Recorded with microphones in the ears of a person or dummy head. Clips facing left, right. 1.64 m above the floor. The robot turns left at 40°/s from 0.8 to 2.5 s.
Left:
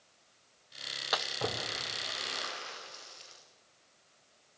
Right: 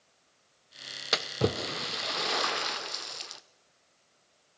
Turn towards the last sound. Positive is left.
turn(degrees=-55)  # may be behind; listen again after turning